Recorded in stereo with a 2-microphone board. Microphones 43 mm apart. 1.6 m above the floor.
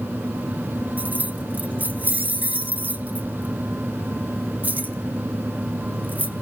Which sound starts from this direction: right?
Keys jangling, at 1.0 s.